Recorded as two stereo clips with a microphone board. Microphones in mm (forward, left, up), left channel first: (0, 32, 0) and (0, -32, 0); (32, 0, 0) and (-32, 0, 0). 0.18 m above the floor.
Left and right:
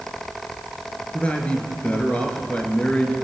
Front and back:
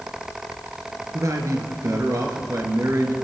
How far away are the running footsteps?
No running footsteps in this recording.